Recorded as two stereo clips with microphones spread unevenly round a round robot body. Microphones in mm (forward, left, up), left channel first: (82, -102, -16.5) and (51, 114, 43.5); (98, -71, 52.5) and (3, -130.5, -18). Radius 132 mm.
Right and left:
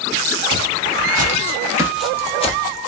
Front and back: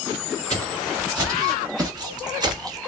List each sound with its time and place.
0.5 s footsteps: 115° left, 1.4 m; by 2.8 s 55° right, 0.7 m